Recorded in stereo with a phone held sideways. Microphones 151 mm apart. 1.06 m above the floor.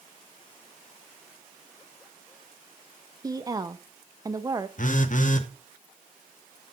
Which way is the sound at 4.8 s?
60° left (ahead or behind).